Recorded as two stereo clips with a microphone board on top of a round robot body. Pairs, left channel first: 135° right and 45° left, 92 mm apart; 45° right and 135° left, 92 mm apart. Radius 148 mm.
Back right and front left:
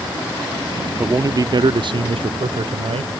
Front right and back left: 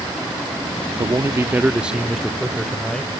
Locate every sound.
1.0 s a man speaking: 105° left; by 3.1 s 35° left